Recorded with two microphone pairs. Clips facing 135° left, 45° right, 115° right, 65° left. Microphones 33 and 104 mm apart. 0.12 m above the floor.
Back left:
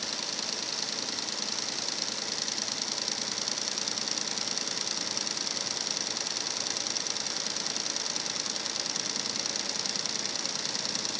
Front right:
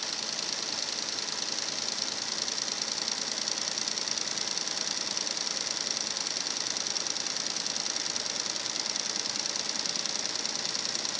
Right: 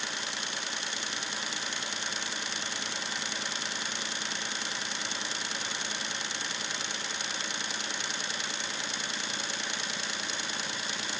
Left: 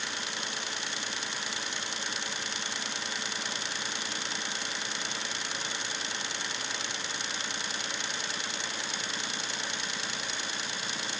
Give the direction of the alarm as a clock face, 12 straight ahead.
I don't hear an alarm.